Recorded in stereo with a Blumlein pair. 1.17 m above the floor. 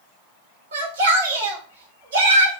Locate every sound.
0.7 s a shout: 65° right, 1.5 m